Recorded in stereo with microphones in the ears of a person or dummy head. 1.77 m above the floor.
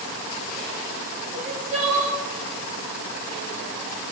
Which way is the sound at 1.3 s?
30° right (ahead or behind).